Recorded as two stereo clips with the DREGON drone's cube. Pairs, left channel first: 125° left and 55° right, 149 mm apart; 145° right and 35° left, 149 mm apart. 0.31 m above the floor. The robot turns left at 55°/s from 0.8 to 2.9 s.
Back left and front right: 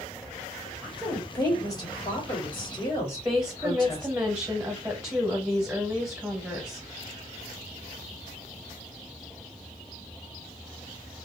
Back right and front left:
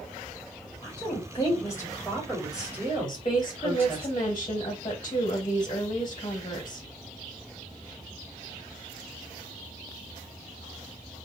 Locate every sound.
0.8 s a woman speaking: 150° right, 1.5 m; by 4.1 s 95° left, 1.5 m
3.1 s a woman speaking: 115° right, 1.2 m